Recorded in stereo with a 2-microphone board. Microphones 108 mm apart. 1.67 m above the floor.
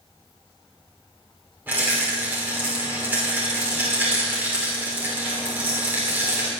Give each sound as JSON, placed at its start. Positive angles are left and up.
{"t": 1.7, "sound": "a rattle", "side_deg": -15, "distance_m": 5.5}